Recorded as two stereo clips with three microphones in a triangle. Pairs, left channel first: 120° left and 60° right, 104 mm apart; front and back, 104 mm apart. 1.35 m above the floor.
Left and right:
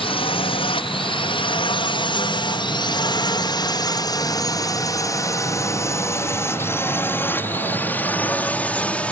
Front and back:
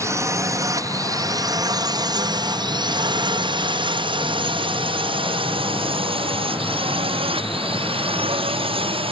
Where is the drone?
125° left; by 9.1 s 160° right.